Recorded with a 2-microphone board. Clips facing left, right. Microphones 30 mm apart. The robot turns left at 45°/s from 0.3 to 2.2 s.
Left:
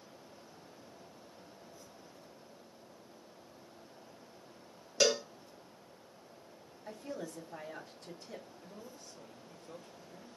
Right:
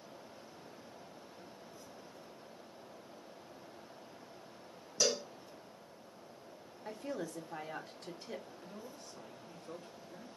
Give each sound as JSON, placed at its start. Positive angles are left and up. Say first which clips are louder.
{"t": 5.0, "sound": "a cowbell", "louder": "left 4 dB", "side_deg": 60, "distance_m": 0.7}
{"t": 6.8, "sound": "a woman speaking", "louder": "right 2 dB", "side_deg": -60, "distance_m": 1.3}
{"t": 8.6, "sound": "a man speaking", "louder": "right 1 dB", "side_deg": -55, "distance_m": 2.5}